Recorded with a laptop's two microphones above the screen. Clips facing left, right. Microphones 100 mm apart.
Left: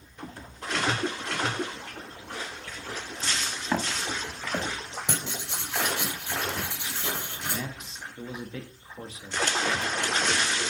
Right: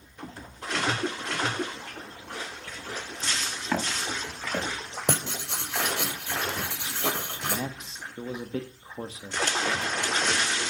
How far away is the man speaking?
About 1.6 m.